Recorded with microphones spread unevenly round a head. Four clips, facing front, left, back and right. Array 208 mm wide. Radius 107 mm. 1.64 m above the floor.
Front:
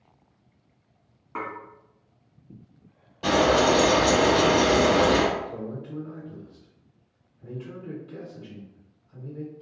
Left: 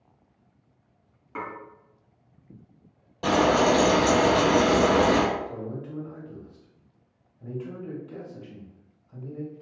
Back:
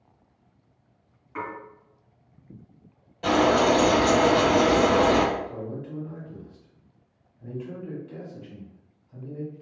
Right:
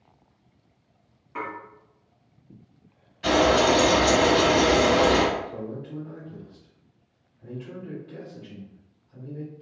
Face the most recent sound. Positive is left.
turn(degrees=110)